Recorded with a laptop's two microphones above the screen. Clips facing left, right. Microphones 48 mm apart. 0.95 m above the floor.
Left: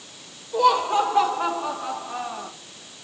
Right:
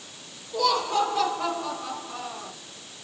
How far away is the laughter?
About 4.5 m.